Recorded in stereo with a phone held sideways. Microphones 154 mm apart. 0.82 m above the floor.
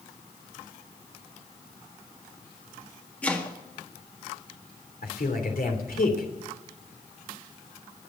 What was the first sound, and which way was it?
Chopping, 10° left (ahead or behind).